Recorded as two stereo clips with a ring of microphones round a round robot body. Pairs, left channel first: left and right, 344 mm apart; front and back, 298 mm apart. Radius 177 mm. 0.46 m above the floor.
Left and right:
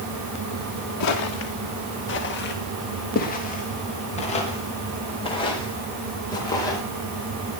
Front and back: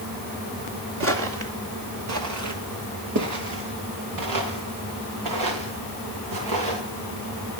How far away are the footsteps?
About 3.5 m.